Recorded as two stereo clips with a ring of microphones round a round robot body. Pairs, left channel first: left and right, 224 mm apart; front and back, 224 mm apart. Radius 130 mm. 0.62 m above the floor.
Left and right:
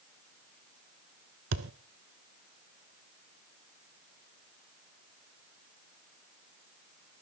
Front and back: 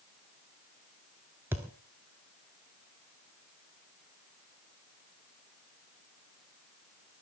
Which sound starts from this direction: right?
A thud, at 1.5 s.